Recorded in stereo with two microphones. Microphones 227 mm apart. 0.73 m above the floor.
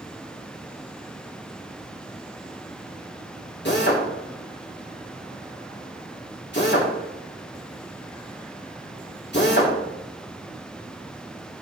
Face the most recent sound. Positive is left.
turn(degrees=50)  # may be behind; listen again after turning